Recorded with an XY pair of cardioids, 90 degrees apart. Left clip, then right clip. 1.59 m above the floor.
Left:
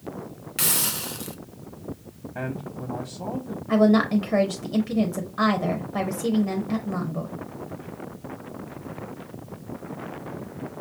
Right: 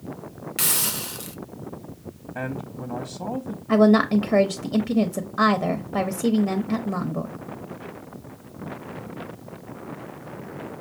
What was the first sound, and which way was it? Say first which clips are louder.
A hiss: even; 10° right.